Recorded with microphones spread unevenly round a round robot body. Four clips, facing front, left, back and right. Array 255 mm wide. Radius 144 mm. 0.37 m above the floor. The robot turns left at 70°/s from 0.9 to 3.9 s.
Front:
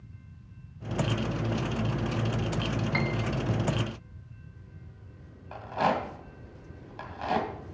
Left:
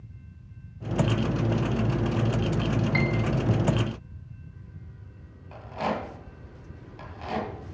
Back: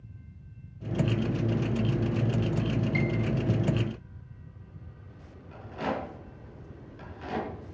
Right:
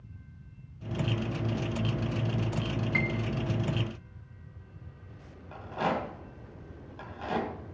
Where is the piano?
10° left, 0.5 m; by 3.2 s 15° right, 0.5 m.